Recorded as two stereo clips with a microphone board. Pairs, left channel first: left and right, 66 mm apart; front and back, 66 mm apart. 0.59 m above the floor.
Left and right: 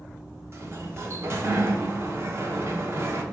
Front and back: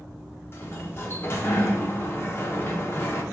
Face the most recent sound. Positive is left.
turn(degrees=-45)